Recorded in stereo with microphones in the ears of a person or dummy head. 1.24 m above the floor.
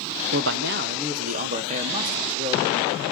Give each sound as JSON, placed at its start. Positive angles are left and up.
{"t": 0.3, "sound": "a man speaking", "side_deg": -55, "distance_m": 0.6}